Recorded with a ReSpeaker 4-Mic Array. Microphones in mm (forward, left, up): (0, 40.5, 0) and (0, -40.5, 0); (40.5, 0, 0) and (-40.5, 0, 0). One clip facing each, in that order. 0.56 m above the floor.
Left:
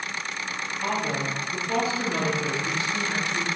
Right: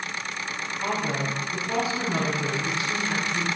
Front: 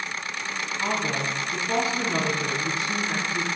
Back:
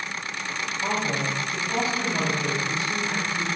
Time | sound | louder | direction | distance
0.8 | a woman speaking | even, even | 10° right | 5.5 m